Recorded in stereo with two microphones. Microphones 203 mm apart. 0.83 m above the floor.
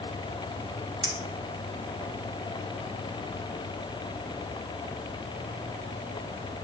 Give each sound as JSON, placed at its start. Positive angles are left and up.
{"t": 1.0, "sound": "a clink", "side_deg": -25, "distance_m": 2.5}